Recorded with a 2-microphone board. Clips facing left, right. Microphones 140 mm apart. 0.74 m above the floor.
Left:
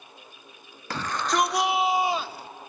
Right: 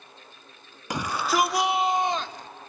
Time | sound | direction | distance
0.9 | a shout | 15° right (ahead or behind) | 0.9 m